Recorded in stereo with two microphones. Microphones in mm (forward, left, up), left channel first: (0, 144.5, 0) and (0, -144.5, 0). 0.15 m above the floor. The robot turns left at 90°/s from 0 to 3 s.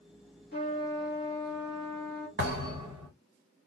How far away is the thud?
About 1.5 m.